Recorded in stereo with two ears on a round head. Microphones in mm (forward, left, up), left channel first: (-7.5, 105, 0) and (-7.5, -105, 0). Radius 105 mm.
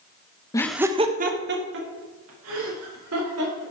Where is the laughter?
15° left (ahead or behind), 0.8 m; by 3.6 s 70° right (ahead or behind), 4 m.